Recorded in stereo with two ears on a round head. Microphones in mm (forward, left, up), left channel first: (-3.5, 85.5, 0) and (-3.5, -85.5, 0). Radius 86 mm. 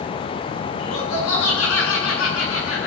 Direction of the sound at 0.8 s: 90° left.